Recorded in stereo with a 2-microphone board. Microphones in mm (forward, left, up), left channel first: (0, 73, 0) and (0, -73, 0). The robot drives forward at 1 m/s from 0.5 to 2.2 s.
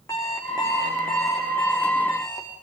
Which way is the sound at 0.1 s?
20° left (ahead or behind).